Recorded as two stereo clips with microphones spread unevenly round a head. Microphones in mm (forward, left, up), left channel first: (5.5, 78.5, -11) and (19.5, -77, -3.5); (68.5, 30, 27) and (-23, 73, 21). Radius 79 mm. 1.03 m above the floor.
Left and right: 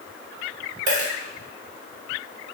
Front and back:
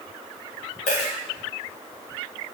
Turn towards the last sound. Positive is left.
turn(degrees=-50)